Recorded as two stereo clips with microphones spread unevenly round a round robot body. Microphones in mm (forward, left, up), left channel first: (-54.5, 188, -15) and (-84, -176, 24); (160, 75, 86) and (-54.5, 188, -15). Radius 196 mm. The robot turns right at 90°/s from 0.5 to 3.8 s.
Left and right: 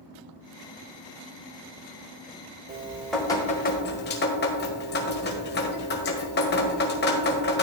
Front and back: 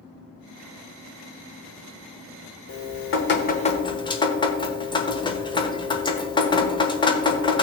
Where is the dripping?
35° right, 1.6 m; by 7.6 s 65° left, 1.6 m.